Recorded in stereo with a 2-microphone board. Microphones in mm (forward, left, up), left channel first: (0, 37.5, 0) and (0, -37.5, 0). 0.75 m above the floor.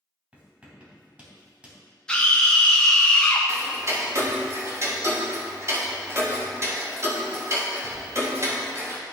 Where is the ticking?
40° right (ahead or behind), 1.3 m.